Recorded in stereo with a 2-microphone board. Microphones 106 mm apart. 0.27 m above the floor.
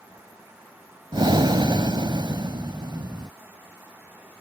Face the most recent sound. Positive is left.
turn(degrees=-45)  # may be behind; listen again after turning